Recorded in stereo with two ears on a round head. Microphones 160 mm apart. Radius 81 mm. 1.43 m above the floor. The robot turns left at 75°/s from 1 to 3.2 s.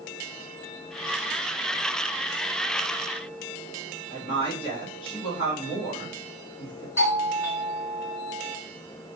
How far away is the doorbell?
About 2 m.